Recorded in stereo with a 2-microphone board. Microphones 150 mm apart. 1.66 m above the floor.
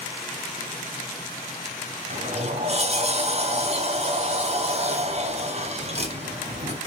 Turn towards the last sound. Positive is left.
turn(degrees=-45)  # may be behind; listen again after turning